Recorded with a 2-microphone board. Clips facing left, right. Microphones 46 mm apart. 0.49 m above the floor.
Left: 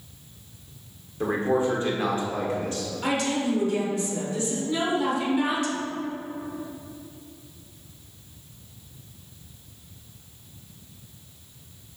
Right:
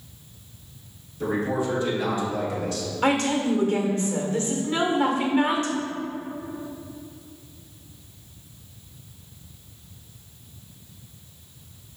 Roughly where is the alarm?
No alarm in this recording.